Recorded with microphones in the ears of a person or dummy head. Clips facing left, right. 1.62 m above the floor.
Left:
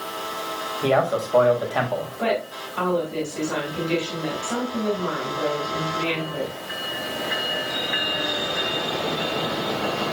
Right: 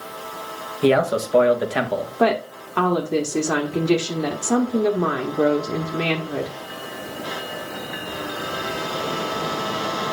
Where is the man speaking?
35° right (ahead or behind), 1.3 m.